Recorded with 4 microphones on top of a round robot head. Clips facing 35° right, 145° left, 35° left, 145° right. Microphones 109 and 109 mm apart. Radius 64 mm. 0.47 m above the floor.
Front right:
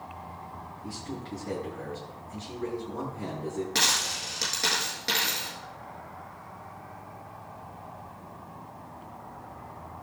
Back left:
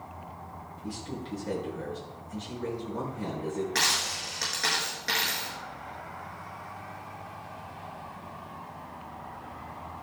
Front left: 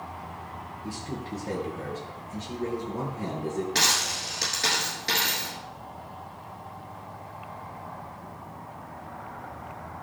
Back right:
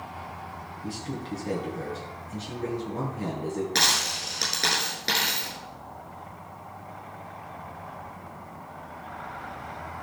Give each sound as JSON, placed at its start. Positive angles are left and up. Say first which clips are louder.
{"t": 0.8, "sound": "a man speaking", "louder": "back left 2 dB, back right 2 dB", "azimuth_deg": -135, "distance_m": 7.5}
{"t": 3.8, "sound": "a dropped coin", "louder": "even, even", "azimuth_deg": -105, "distance_m": 7.0}